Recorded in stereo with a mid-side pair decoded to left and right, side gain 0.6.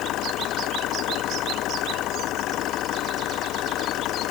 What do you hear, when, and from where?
0.0 s an engine running: 65° left